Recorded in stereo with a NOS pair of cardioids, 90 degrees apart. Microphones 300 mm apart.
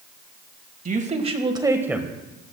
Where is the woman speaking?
25° right, 1.7 m; by 2.1 s straight ahead, 1.4 m.